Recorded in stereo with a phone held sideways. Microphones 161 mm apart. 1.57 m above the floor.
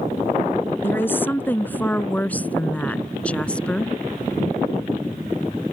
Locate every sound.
0.8 s a woman speaking: 10° left (ahead or behind); by 3.9 s 5° left (ahead or behind)